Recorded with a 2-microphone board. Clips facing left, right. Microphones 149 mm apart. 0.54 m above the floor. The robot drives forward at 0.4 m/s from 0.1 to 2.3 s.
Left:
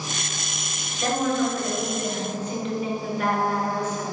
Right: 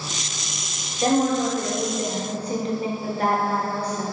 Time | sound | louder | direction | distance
1.0 | a woman speaking | right 3 dB | 25° right (ahead or behind) | 1.0 m